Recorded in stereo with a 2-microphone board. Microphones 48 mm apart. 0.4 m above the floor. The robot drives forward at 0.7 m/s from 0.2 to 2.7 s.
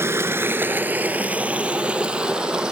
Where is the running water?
60° right (ahead or behind), 0.7 m; by 2.7 s 20° right (ahead or behind), 2 m.